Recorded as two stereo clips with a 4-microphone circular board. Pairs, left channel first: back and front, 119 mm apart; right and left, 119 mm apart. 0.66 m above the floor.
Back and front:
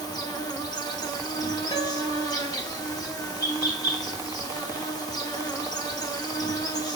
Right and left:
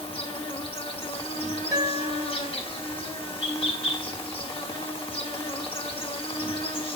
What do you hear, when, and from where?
0.0 s an insect: 125° right, 1.1 m
1.7 s a guitar: 150° left, 2.5 m